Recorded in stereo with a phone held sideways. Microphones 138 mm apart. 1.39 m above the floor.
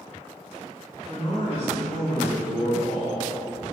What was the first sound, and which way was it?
A man speaking, 20° left (ahead or behind).